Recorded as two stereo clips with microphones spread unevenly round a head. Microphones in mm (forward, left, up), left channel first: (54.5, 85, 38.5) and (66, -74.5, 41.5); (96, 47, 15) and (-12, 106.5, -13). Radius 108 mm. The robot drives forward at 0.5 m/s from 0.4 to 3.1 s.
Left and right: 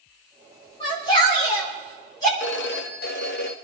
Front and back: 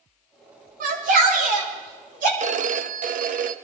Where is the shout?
160° left, 3 m; by 2.3 s 165° left, 4 m.